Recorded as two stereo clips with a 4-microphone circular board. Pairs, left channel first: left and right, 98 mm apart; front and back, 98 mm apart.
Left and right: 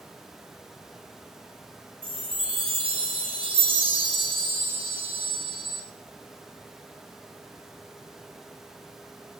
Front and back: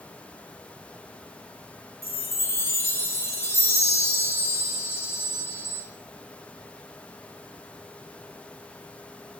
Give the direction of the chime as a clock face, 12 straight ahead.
2 o'clock.